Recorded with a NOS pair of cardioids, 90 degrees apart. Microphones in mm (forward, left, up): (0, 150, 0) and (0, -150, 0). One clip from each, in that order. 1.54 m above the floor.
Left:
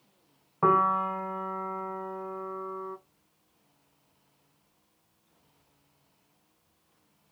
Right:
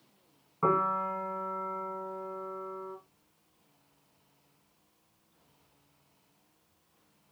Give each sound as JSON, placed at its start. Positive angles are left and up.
{"t": 0.6, "sound": "a piano", "azimuth_deg": 30, "distance_m": 0.9}